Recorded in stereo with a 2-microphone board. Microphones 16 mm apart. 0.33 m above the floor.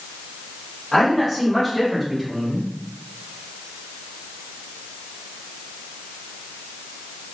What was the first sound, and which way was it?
A man speaking, 20° left (ahead or behind).